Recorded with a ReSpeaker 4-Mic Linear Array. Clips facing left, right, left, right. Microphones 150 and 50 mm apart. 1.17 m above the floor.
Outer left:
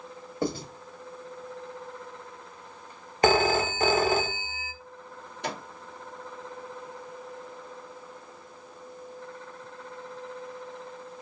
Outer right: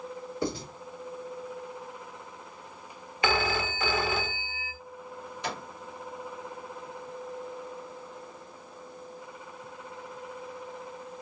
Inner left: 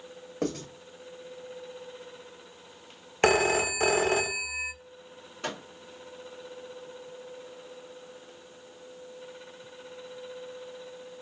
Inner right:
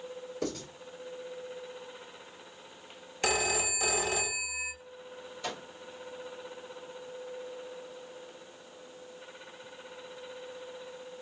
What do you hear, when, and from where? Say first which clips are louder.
0.4 s writing: outer left 3 dB, inner left 5 dB; 50° left (ahead or behind), 1.7 m
3.2 s a phone ringing: outer left 6 dB, inner left 7 dB; 45° left (ahead or behind), 0.6 m
5.4 s a microwave: outer left 2 dB, inner left 3 dB; 60° left (ahead or behind), 2.5 m